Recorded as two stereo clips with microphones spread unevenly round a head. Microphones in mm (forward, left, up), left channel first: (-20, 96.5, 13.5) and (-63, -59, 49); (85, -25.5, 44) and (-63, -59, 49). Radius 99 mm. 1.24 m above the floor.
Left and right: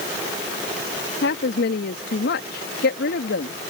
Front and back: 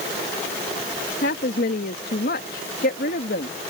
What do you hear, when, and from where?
1.2 s a woman speaking: 50° left